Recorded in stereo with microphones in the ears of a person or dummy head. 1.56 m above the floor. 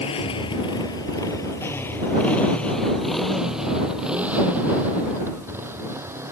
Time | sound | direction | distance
0.0 | a motorcycle | 35° left (ahead or behind) | ?